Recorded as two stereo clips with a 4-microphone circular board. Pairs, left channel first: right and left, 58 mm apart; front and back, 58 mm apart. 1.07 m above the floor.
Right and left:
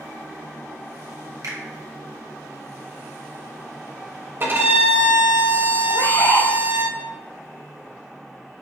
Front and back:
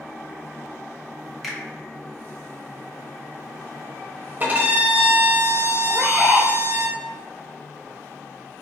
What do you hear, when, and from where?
1.4 s a finger snap: 90° left, 1.4 m
4.4 s a violin: 130° left, 1.2 m
5.9 s a bird: 105° right, 1.4 m